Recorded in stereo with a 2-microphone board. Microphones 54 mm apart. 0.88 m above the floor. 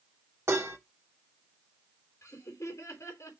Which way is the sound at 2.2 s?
70° left (ahead or behind).